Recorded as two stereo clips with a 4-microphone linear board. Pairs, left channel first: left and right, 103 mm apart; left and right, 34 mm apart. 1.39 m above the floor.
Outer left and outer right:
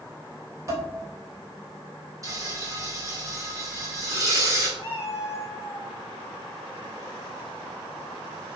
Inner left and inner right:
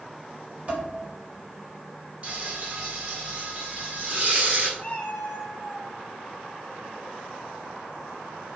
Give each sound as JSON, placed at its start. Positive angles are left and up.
{"t": 0.7, "sound": "dishes clattering", "side_deg": -30, "distance_m": 4.0}
{"t": 2.2, "sound": "frying", "side_deg": -35, "distance_m": 3.0}
{"t": 4.8, "sound": "a cat meowing", "side_deg": 25, "distance_m": 3.0}